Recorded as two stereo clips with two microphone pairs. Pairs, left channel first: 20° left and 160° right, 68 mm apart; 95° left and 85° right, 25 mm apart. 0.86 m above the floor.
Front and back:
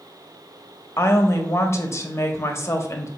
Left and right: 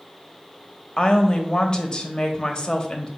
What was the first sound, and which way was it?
A woman speaking, 50° left.